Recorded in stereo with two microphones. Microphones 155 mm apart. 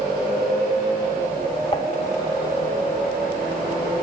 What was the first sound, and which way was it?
Dishes clattering, 40° left (ahead or behind).